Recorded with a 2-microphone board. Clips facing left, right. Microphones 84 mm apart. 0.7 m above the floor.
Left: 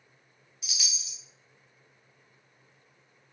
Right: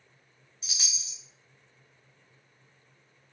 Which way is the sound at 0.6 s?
35° right (ahead or behind).